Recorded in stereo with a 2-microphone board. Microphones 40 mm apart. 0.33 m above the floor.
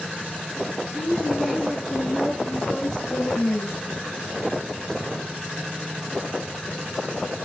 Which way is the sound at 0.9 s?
10° right (ahead or behind).